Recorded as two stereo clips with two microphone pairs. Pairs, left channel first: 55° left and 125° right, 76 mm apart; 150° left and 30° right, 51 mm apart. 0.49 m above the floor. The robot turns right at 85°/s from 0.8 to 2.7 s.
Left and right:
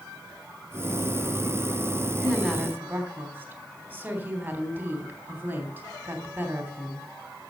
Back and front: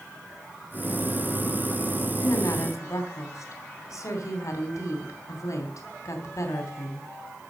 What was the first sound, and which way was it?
A woman speaking, 125° left.